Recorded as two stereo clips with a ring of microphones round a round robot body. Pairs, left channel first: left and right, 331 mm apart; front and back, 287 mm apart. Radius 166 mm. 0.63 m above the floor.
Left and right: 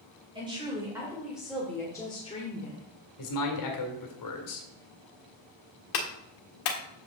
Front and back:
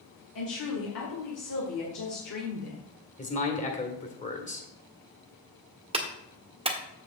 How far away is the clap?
About 1.5 m.